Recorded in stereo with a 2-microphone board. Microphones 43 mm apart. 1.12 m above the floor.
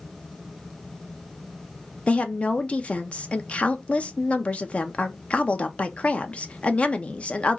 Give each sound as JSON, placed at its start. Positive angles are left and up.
{"t": 2.1, "sound": "a woman speaking", "side_deg": 30, "distance_m": 0.5}